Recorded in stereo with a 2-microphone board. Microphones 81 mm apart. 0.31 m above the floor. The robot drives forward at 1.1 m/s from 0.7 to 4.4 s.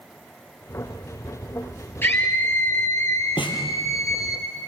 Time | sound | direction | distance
2.0 | a scream | 25° left (ahead or behind) | 5.5 m
3.4 | a snare drum | 85° left | 2.5 m